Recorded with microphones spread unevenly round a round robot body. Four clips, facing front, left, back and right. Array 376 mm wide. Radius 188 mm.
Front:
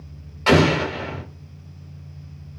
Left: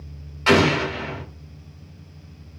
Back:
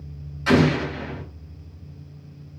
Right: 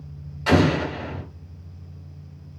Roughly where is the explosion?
Ahead.